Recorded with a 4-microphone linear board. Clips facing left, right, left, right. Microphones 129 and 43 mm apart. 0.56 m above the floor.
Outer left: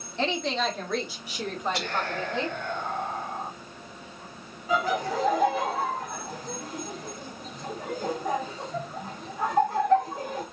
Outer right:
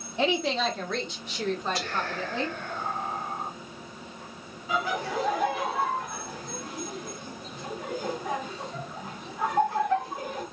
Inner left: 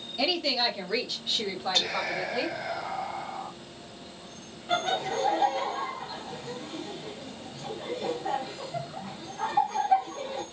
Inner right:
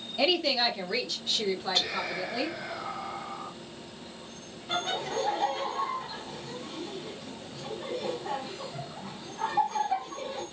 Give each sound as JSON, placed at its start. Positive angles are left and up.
{"t": 0.2, "sound": "a woman speaking", "side_deg": -10, "distance_m": 1.3}
{"t": 1.7, "sound": "whispering", "side_deg": 65, "distance_m": 3.0}
{"t": 4.7, "sound": "laughter", "side_deg": 35, "distance_m": 1.7}